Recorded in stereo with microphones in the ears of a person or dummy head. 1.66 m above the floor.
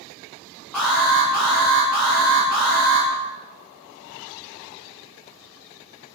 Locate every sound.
0.7 s an alarm: 5° left (ahead or behind), 0.9 m